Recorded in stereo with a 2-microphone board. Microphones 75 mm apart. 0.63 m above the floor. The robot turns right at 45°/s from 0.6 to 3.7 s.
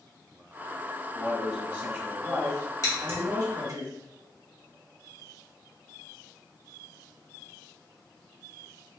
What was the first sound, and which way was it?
A man speaking, 165° left.